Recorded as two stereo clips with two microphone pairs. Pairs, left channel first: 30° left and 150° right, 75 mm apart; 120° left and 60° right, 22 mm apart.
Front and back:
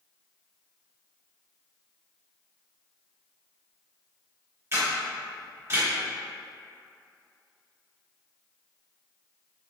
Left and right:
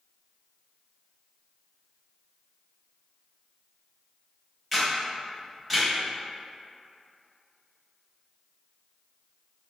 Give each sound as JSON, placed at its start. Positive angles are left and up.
{"t": 4.7, "sound": "a camera shutter", "azimuth_deg": -160, "distance_m": 1.6}